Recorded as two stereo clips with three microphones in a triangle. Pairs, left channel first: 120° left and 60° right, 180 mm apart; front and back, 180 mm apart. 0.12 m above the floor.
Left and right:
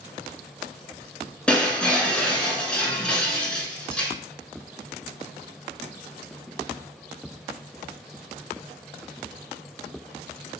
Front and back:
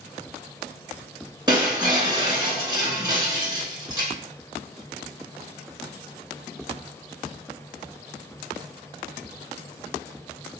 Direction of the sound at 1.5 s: 165° right.